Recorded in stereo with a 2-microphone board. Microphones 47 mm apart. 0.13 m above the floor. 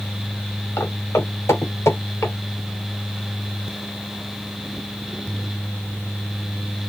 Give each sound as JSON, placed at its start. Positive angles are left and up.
{"t": 0.8, "sound": "footsteps", "side_deg": 75, "distance_m": 3.0}